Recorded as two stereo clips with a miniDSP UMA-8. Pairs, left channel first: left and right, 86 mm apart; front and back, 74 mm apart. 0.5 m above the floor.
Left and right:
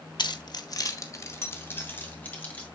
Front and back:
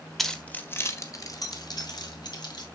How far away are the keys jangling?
About 1.3 m.